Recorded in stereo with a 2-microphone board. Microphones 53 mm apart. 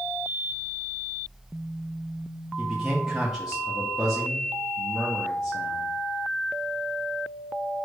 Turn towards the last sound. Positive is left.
turn(degrees=-5)  # may be behind; listen again after turning